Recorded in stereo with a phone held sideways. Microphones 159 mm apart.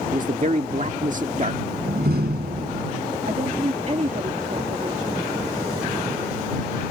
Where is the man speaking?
55° right (ahead or behind).